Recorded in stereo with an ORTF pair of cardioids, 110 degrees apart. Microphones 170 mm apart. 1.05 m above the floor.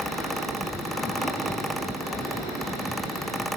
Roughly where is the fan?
Ahead.